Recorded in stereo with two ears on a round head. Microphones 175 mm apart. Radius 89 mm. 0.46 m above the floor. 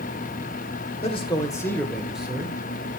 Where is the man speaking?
30° left (ahead or behind), 2 m; by 3.0 s 30° right (ahead or behind), 2 m.